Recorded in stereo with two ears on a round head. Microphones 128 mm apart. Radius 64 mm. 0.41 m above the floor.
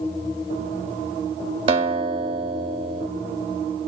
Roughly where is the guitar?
Right.